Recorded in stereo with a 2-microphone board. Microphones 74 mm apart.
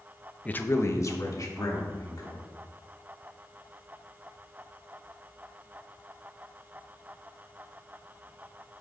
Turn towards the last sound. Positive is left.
turn(degrees=60)  # may be behind; listen again after turning